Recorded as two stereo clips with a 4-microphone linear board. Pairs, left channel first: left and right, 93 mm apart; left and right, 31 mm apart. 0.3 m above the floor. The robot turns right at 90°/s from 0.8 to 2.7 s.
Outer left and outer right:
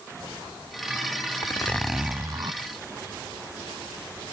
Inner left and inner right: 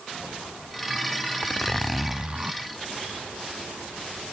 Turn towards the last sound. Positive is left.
turn(degrees=-105)